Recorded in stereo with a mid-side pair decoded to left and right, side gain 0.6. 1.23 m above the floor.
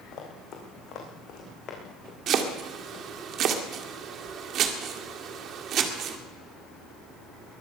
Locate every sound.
0.1 s running footsteps: 50° left, 4 m
2.3 s chopping: 55° right, 1.9 m